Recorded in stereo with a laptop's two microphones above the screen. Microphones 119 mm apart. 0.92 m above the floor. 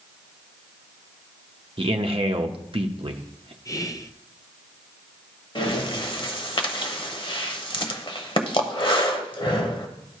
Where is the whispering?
30° left (ahead or behind), 0.5 m.